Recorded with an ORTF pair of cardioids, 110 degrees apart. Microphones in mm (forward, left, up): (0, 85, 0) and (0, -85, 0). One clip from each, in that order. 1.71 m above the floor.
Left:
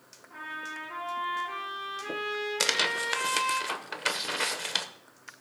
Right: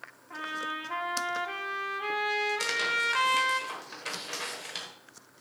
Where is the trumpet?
50° right, 3 m.